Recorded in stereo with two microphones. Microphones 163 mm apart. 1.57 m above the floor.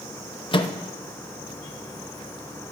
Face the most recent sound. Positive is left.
turn(degrees=35)  # may be behind; listen again after turning